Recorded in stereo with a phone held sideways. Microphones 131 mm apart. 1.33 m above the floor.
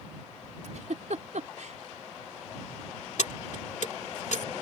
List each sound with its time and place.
0.6 s a giggle: 65° right (ahead or behind)
3.2 s keys jangling: 65° left (ahead or behind)